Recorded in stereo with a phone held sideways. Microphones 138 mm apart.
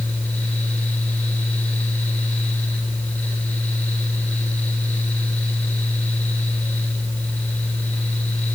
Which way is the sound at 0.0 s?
10° left (ahead or behind).